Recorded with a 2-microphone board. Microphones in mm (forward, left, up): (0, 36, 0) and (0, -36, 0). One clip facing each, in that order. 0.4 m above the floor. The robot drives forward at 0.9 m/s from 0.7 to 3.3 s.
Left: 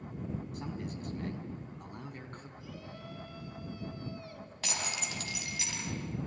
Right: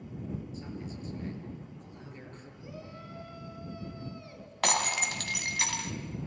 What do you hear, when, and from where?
0.5 s a man speaking: 70° left (ahead or behind), 3 m; by 2.5 s 55° left (ahead or behind), 3.5 m
2.6 s a shout: 30° right (ahead or behind), 3.5 m; by 5.6 s 25° right (ahead or behind), 4 m
4.6 s breaking glass: 70° right (ahead or behind), 2 m